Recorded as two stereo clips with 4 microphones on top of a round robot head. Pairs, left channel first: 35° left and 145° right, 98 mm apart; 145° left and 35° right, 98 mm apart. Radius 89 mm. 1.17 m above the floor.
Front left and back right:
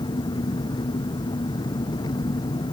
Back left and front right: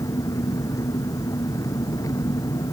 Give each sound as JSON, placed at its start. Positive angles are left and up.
{"t": 0.0, "sound": "an engine running", "azimuth_deg": 85}